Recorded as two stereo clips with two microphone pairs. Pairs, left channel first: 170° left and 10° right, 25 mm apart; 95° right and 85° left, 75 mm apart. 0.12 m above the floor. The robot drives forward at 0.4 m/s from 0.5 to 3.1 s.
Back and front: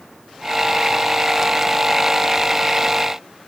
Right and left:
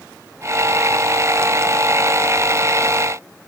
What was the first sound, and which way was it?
Only background noise.